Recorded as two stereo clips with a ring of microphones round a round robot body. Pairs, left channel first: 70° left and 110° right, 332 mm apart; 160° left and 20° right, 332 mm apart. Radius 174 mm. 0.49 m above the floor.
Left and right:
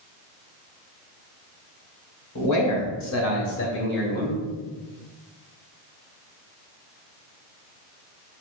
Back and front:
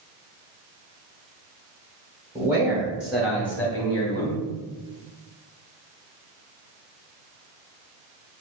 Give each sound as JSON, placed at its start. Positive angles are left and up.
{"t": 2.4, "sound": "a man speaking", "azimuth_deg": 55, "distance_m": 2.5}